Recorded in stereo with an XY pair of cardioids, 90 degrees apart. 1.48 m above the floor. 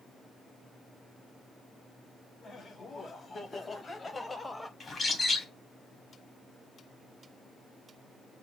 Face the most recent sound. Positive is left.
turn(degrees=40)